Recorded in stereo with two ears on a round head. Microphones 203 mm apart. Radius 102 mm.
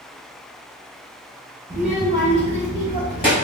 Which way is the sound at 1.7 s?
40° right (ahead or behind).